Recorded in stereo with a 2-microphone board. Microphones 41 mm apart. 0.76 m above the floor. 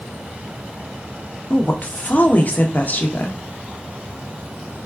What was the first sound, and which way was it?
A woman speaking, 45° left (ahead or behind).